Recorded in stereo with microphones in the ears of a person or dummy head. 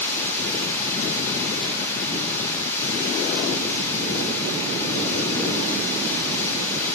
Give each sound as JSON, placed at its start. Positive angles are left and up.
{"t": 0.0, "sound": "running water", "side_deg": 15, "distance_m": 1.1}